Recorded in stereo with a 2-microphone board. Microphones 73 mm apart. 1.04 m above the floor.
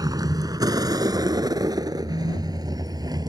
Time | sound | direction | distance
0.0 | a vehicle | 65° right (ahead or behind) | ?